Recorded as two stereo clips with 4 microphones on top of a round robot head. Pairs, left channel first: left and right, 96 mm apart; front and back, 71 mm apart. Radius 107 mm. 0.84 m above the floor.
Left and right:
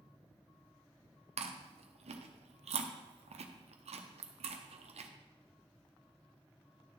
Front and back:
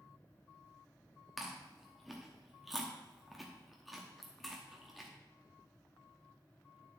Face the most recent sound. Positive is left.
turn(degrees=-90)